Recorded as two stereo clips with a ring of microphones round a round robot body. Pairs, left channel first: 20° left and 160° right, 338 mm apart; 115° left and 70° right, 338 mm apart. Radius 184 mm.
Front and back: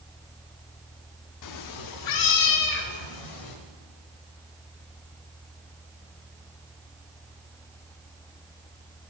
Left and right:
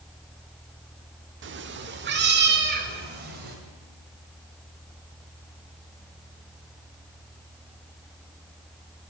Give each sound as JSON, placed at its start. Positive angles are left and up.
{"t": 1.4, "sound": "a cat meowing", "azimuth_deg": -10, "distance_m": 0.7}